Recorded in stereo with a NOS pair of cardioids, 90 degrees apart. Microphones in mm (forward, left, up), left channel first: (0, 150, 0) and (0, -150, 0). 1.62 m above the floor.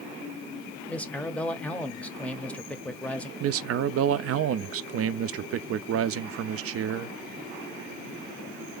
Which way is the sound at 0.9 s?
5° left.